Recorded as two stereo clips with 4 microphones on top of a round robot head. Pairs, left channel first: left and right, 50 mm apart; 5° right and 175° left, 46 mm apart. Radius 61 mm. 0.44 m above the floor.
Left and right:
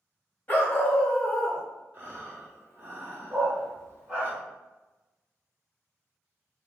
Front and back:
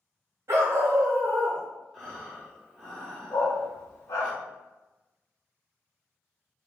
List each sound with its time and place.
0.5 s a dog barking: 150° left, 1.0 m; by 1.6 s 165° right, 0.5 m
1.9 s breathing: 95° right, 1.5 m
3.3 s a dog barking: 15° right, 0.8 m